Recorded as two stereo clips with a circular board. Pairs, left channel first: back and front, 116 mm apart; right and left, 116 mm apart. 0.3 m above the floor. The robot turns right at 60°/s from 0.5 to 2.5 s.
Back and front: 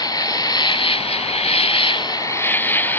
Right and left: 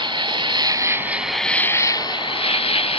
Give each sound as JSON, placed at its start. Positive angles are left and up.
{"t": 0.0, "sound": "an insect", "azimuth_deg": 130}